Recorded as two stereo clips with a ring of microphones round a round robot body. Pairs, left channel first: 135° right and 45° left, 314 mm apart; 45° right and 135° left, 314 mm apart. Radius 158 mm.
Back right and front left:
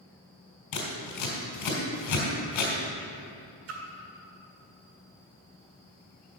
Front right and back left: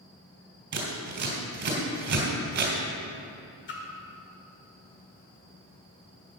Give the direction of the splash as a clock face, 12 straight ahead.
12 o'clock.